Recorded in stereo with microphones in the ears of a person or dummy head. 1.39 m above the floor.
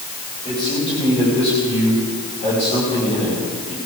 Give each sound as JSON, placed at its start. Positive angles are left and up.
{"t": 0.5, "sound": "a man speaking", "side_deg": 35, "distance_m": 7.0}